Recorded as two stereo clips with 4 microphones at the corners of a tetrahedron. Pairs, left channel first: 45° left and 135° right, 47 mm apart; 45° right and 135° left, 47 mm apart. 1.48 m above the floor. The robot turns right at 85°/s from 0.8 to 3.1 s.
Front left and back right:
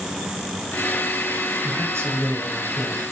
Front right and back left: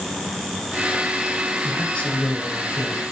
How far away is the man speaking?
About 7.5 m.